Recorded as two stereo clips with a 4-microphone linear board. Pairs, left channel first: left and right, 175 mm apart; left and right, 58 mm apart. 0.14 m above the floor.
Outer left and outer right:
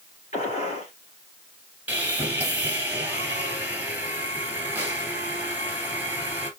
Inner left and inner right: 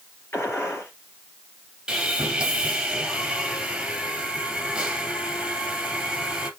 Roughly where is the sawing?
Centre.